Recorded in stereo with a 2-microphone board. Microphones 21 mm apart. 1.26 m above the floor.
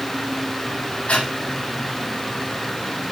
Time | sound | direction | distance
1.1 | breathing | 90° left | 8 m